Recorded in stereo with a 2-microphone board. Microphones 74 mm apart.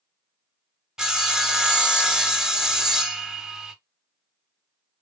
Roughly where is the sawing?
Centre.